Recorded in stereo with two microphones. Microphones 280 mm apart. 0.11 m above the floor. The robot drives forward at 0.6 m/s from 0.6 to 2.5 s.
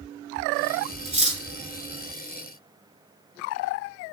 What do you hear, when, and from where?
1.1 s cutlery clinking: 25° right (ahead or behind), 0.7 m